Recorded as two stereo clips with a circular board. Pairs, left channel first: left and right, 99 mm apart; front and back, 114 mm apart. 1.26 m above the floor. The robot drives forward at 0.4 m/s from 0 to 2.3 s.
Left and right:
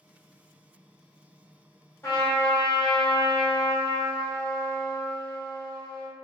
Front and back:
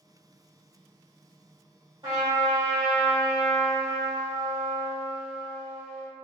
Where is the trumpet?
145° left, 1.4 m; by 6.1 s 150° left, 1.5 m.